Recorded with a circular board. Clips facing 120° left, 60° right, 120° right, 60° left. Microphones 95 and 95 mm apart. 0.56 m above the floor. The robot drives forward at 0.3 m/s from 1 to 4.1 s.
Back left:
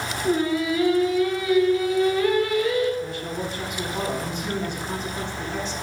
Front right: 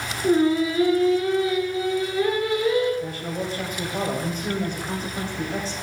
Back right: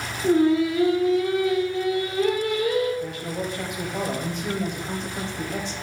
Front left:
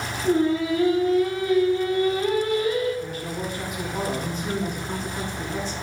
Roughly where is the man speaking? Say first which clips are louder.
Even, back right 1 dB; right.